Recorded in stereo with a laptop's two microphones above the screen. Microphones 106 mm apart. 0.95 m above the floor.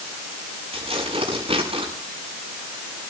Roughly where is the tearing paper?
Right.